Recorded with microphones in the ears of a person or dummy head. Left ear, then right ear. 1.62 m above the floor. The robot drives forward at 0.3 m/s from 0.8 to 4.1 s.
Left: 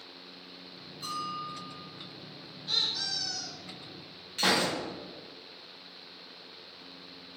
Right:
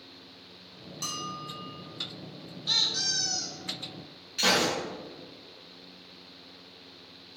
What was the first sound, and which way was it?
A bell, 65° right (ahead or behind).